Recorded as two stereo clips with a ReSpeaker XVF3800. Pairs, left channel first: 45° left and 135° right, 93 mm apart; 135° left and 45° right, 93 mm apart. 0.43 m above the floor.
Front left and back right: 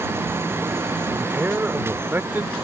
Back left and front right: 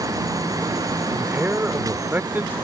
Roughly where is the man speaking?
Right.